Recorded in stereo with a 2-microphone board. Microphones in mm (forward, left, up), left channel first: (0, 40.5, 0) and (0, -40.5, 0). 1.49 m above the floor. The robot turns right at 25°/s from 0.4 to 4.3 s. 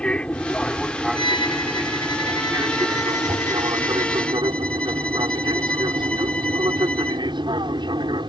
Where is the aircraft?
165° left; by 8.3 s 95° right.